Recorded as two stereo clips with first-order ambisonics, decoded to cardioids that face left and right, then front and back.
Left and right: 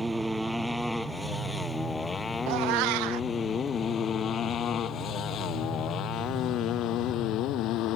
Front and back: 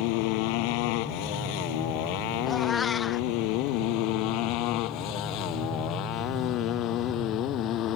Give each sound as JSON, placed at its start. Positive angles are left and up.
{"t": 0.0, "sound": "a motorcycle", "azimuth_deg": -5}
{"t": 2.5, "sound": "a cat meowing", "azimuth_deg": -70}